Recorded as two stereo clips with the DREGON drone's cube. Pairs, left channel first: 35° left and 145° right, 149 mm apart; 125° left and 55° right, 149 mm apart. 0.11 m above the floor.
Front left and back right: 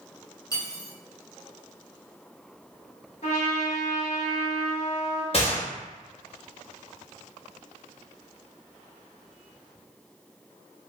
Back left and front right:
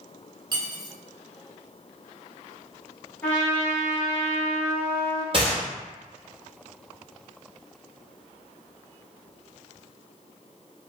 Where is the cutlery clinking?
15° right, 0.9 m.